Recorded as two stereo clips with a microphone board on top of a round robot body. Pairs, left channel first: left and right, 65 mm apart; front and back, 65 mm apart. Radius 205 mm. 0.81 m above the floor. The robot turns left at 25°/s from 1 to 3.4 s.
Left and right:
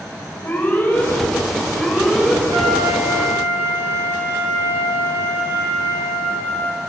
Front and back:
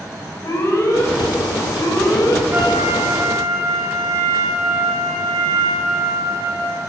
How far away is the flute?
About 6.5 m.